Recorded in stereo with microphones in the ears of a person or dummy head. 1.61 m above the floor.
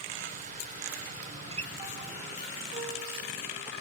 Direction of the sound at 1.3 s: 35° right (ahead or behind).